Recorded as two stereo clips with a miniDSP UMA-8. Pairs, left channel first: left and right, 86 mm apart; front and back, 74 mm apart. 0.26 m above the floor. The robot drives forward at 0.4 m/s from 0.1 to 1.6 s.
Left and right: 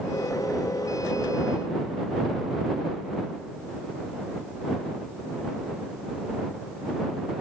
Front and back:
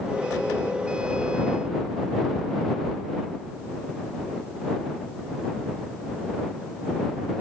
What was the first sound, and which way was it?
Only background noise.